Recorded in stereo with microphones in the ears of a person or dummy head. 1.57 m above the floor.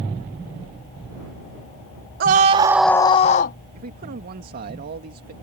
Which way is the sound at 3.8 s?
50° right (ahead or behind).